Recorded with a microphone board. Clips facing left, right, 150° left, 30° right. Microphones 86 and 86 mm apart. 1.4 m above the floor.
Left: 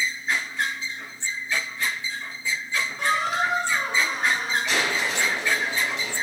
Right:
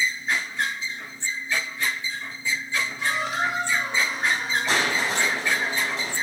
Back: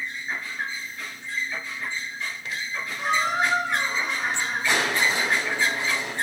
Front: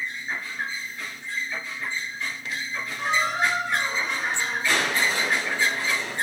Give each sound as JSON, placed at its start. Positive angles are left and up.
{"t": 3.0, "sound": "a squeak", "azimuth_deg": 60, "distance_m": 3.5}
{"t": 4.7, "sound": "crushing", "azimuth_deg": -135, "distance_m": 6.0}